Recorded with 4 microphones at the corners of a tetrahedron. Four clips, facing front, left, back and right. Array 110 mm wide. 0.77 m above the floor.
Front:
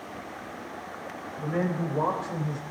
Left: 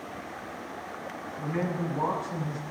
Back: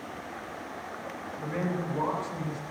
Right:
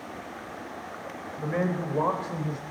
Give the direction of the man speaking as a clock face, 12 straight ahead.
2 o'clock.